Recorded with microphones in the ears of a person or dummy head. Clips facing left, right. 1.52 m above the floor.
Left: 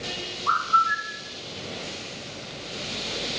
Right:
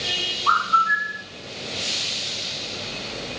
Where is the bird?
60° right (ahead or behind), 2 m.